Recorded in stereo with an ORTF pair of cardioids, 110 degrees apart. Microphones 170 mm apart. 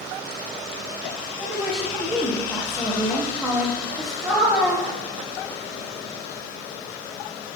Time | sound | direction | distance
1.4 | a woman speaking | 10° right | 1.0 m